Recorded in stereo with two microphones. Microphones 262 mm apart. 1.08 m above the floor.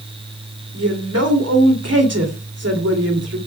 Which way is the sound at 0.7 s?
65° right (ahead or behind).